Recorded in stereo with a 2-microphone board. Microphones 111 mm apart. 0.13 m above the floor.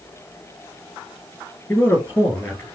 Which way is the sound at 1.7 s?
20° left (ahead or behind).